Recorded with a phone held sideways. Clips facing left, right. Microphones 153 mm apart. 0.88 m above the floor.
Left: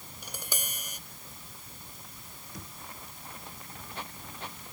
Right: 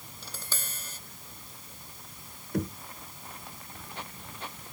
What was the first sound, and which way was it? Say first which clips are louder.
Tapping: left 2 dB; 15° left (ahead or behind).